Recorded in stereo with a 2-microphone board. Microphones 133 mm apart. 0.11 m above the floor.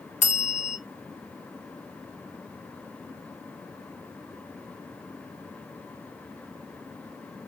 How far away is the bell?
About 0.6 m.